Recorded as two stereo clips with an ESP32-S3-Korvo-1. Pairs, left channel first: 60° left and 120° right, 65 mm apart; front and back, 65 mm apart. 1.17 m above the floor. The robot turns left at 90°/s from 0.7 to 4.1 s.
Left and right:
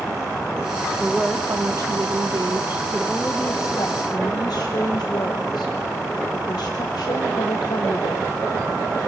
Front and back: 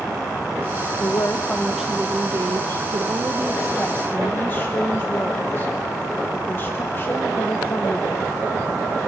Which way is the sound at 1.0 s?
25° right.